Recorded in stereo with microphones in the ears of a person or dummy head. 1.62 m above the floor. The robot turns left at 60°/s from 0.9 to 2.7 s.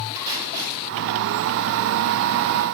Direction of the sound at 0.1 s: 20° right (ahead or behind).